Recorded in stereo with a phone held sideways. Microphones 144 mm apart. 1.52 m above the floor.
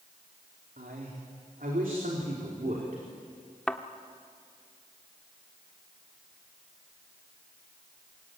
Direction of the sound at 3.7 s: 5° left (ahead or behind).